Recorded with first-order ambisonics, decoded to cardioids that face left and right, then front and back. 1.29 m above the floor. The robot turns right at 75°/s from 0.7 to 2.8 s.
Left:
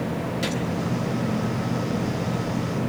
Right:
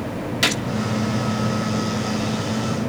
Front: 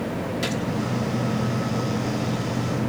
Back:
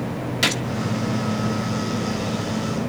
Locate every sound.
0.4 s a gunshot: 135° right, 1.3 m